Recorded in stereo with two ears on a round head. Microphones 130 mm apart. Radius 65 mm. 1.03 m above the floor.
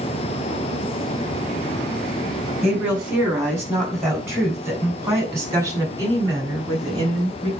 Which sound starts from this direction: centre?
A woman speaking, at 2.6 s.